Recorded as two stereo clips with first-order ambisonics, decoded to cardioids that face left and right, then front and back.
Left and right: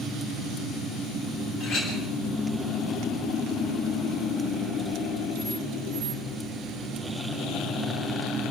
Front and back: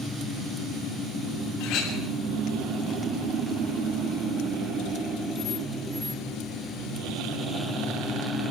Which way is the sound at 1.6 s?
40° left.